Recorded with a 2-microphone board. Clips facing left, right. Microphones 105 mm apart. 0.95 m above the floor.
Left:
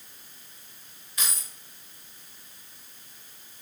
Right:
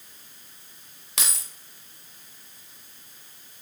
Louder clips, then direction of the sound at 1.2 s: Right 2 dB; 80° right.